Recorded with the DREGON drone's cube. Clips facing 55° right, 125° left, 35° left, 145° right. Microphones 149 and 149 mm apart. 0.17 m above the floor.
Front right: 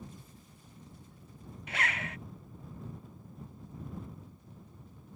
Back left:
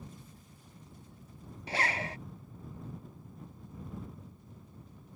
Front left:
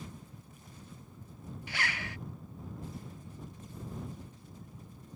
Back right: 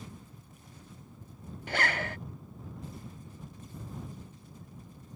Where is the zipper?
Straight behind.